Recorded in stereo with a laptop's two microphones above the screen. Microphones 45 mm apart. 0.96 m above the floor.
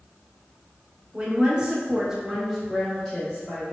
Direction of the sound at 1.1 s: 20° right (ahead or behind).